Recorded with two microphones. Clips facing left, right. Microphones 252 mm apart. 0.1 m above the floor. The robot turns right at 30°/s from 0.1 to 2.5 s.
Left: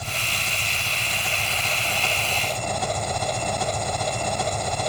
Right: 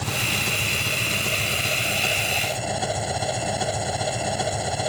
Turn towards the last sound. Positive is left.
turn(degrees=-5)